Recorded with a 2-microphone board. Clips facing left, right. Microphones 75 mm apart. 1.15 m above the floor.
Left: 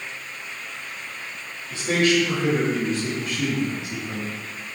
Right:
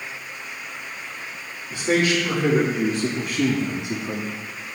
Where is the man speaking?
25° right (ahead or behind), 2 m; by 4.3 s 75° right (ahead or behind), 1.2 m.